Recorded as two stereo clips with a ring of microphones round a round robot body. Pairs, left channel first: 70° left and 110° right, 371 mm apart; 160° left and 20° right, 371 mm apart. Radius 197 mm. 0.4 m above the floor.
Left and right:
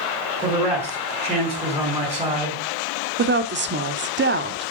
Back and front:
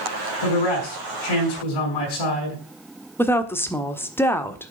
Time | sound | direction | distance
0.4 | a man speaking | 165° left | 4.5 m
3.2 | a woman speaking | 125° right | 1.3 m